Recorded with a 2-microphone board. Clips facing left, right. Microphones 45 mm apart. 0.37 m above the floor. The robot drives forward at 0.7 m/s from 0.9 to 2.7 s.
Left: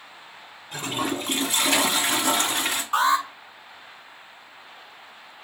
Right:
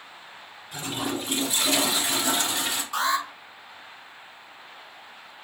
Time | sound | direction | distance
0.7 | a toilet flushing | 60° left (ahead or behind) | 1.7 m
2.9 | an alarm | 45° left (ahead or behind) | 2 m